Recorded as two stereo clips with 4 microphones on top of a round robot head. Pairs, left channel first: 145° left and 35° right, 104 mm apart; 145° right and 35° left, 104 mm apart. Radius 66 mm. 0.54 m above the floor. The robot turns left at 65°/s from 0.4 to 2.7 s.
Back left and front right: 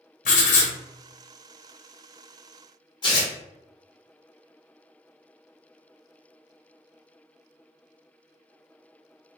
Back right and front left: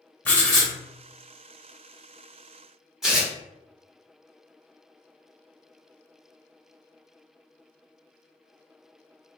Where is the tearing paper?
125° left, 1.0 m.